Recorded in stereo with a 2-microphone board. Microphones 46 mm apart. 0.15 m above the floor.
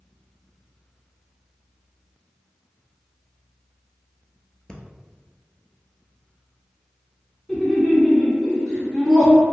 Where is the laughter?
10° left (ahead or behind), 1.2 m.